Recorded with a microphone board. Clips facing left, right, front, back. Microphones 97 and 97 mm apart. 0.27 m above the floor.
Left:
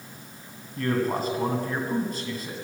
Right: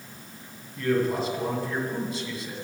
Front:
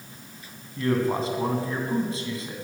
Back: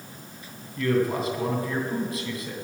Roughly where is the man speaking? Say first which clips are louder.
Right 1 dB, even; ahead left.